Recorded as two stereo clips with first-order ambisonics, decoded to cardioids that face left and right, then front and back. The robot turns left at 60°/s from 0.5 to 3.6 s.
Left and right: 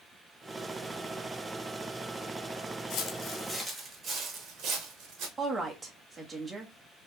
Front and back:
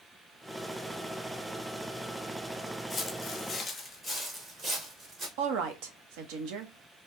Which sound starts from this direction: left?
Footsteps, at 2.9 s.